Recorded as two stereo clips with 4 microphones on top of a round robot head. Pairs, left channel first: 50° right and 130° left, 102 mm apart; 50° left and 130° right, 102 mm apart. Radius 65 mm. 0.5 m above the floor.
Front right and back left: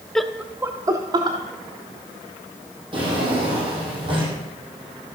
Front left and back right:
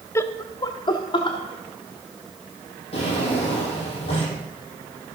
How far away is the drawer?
About 6 m.